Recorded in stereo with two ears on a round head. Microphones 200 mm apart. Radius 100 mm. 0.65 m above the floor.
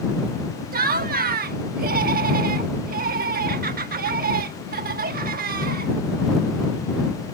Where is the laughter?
40° right (ahead or behind).